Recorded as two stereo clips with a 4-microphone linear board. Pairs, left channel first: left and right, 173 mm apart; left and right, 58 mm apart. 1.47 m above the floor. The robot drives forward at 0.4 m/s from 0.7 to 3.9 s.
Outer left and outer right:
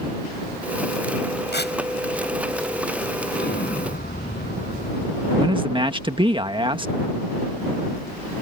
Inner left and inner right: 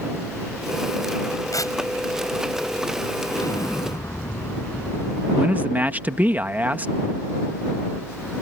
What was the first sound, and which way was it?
Tearing paper, 85° left.